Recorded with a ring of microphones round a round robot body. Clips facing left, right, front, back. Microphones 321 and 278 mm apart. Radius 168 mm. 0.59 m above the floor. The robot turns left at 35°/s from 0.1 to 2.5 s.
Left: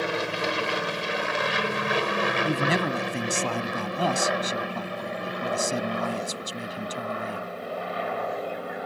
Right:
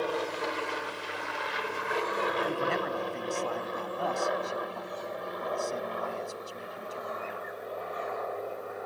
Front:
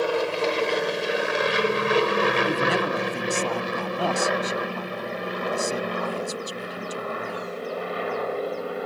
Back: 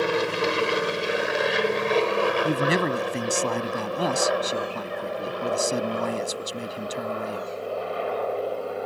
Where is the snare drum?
I don't hear a snare drum.